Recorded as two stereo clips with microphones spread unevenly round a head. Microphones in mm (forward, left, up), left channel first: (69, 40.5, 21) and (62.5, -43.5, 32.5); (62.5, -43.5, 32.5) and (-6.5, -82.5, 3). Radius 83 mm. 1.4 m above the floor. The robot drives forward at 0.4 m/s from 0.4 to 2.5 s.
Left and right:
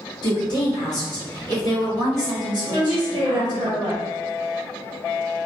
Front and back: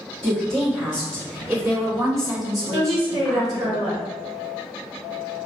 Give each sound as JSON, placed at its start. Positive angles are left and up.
{"t": 0.2, "sound": "a woman speaking", "azimuth_deg": 120, "distance_m": 0.9}
{"t": 2.7, "sound": "a woman speaking", "azimuth_deg": -160, "distance_m": 0.8}